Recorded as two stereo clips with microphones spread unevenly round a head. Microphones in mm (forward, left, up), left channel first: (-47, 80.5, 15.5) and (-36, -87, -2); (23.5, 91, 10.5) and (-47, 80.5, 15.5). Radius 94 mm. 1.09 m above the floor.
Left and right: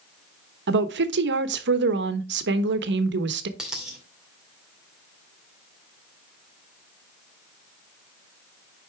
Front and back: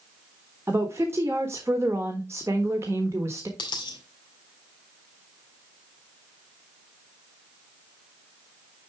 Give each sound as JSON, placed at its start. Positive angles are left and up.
{"t": 0.7, "sound": "a woman speaking", "azimuth_deg": -95, "distance_m": 1.1}
{"t": 3.6, "sound": "a dropped coin", "azimuth_deg": 5, "distance_m": 1.8}